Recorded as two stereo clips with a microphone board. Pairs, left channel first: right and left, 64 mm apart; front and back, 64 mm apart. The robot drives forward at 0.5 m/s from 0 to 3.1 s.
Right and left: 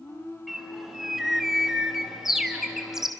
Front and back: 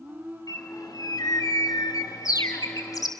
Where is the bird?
5° left, 3.5 m; by 3.1 s 10° left, 2.5 m.